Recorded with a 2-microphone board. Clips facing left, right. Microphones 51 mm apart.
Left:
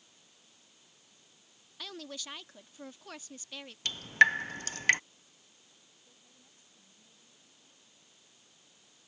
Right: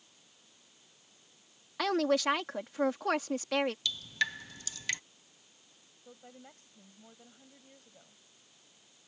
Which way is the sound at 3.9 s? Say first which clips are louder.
Left 10 dB; 45° left (ahead or behind).